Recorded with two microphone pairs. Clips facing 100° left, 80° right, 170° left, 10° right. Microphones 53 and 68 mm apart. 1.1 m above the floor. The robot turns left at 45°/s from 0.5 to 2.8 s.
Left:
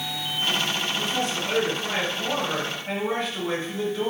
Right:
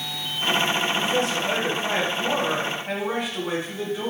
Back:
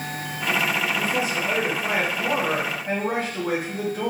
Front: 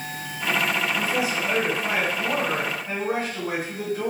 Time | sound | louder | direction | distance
0.9 | a man speaking | right 4 dB, even | 75° right | 1.5 m